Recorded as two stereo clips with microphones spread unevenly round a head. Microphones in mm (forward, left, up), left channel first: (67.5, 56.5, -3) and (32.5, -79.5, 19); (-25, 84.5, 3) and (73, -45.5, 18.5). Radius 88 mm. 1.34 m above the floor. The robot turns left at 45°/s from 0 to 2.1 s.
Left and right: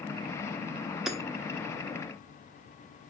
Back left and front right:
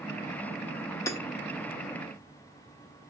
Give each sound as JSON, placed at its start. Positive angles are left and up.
{"t": 1.1, "sound": "hammering", "azimuth_deg": -170, "distance_m": 0.9}